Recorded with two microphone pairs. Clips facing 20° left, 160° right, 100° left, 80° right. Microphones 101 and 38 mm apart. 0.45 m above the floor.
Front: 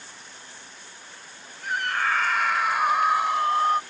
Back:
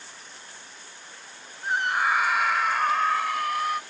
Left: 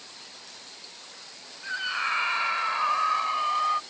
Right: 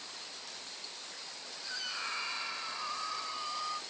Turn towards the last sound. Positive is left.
turn(degrees=70)